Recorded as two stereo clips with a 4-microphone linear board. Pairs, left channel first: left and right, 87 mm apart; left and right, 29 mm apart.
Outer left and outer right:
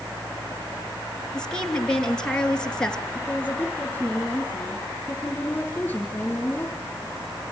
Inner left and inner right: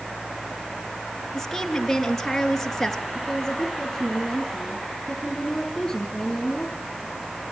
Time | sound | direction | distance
1.3 | a woman speaking | 10° left (ahead or behind) | 3 m
3.1 | a woman speaking | 20° left (ahead or behind) | 6 m